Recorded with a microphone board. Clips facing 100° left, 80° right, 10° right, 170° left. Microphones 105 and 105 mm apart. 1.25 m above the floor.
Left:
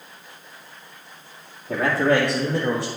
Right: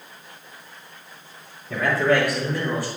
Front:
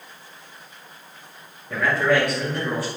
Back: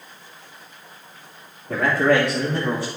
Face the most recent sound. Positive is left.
turn(degrees=105)